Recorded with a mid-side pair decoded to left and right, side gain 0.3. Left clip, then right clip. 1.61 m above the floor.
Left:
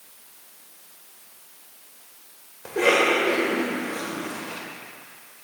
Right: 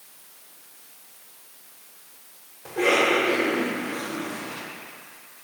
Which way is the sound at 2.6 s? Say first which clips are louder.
Left 1 dB; 70° left.